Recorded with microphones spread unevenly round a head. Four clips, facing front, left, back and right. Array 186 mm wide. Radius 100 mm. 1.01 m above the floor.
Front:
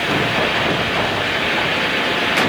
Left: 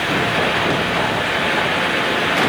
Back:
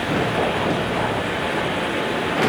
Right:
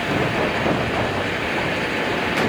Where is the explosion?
No explosion in this recording.